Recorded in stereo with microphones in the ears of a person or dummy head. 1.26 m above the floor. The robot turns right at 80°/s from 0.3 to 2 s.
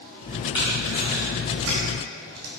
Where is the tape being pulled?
25° left (ahead or behind), 2.5 m; by 2.5 s 80° right, 2.5 m.